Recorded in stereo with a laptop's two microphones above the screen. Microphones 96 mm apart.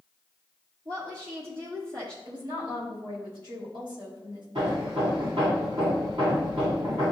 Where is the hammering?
55° right (ahead or behind), 1.7 m.